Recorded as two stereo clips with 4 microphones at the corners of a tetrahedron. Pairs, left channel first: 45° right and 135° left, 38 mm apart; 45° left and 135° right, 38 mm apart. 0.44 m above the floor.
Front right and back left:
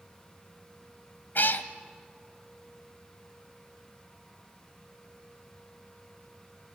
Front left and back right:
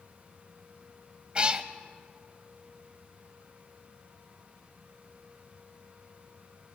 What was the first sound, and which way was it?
A cat meowing, 70° right.